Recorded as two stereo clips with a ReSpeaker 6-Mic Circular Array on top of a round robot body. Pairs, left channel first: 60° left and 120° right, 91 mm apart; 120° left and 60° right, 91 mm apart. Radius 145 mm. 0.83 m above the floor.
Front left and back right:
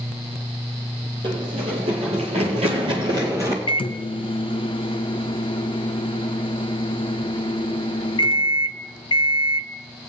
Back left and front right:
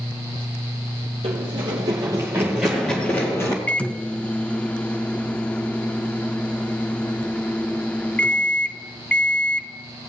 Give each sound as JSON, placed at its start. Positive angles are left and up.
{"t": 1.2, "sound": "running footsteps", "azimuth_deg": -85, "distance_m": 1.7}
{"t": 3.7, "sound": "a microwave", "azimuth_deg": 45, "distance_m": 0.6}